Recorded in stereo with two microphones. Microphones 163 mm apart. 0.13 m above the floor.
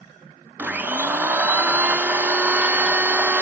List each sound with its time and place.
0.6 s a blender: 10° right (ahead or behind), 0.5 m